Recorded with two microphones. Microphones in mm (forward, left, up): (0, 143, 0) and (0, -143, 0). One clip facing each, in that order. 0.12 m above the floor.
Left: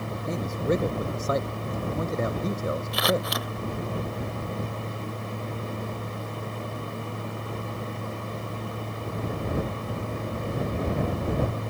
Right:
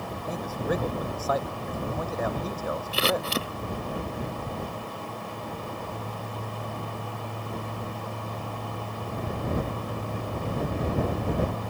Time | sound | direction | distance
0.3 | a man speaking | 25° left (ahead or behind) | ?
2.9 | scissors | 30° right (ahead or behind) | ?